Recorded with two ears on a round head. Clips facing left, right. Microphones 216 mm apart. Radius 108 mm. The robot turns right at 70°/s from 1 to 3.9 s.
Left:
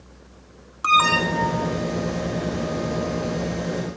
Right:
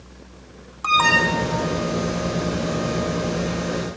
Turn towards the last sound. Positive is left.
turn(degrees=0)